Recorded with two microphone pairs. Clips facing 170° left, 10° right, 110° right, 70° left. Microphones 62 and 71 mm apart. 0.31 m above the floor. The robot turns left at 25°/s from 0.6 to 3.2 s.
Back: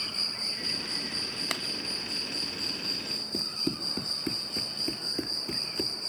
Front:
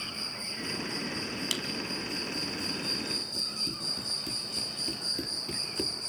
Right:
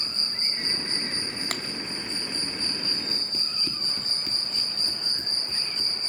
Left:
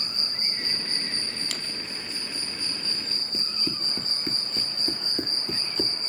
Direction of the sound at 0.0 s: 170° right.